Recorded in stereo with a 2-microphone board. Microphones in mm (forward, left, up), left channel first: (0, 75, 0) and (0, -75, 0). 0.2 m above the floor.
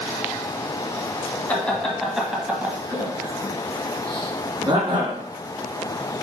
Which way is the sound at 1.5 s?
10° left (ahead or behind).